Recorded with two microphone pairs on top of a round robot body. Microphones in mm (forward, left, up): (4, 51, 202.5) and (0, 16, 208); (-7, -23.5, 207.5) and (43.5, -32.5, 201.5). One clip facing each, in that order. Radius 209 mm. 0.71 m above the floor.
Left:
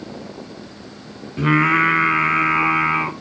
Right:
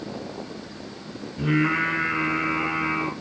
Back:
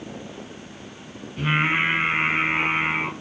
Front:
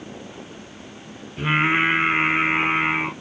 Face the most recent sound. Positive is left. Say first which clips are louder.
# left 7 dB, front 2 dB
turn(degrees=75)